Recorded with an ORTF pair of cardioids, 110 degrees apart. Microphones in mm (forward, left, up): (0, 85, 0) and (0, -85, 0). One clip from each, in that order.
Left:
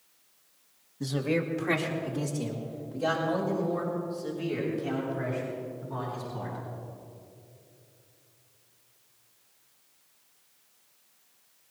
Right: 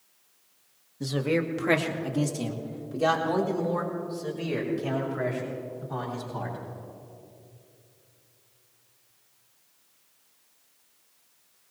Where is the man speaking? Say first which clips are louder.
Right 2 dB; 10° right, 1.9 m; by 6.6 s 75° right, 8.5 m.